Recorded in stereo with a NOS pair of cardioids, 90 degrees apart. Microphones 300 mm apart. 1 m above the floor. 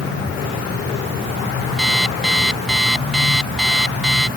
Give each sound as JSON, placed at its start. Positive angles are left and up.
{"t": 1.8, "sound": "an alarm clock", "azimuth_deg": 0}